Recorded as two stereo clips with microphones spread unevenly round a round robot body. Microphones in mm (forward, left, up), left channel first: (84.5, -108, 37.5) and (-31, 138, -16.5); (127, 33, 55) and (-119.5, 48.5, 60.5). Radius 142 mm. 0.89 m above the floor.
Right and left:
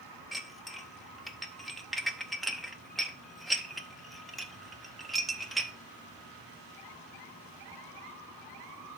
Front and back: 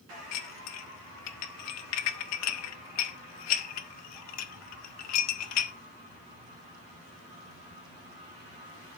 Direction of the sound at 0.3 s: 25° left.